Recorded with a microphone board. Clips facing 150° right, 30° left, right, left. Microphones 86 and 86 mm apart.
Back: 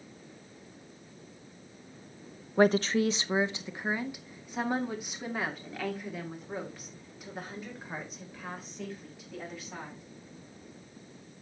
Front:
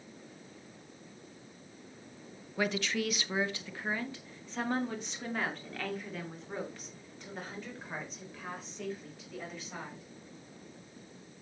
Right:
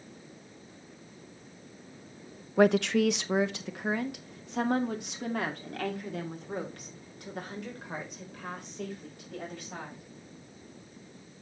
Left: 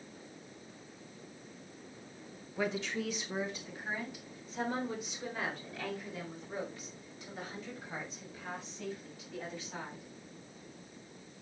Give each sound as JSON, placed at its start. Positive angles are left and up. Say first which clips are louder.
{"t": 2.6, "sound": "a woman speaking", "louder": "back 9 dB, right 12 dB", "azimuth_deg": -105, "distance_m": 0.7}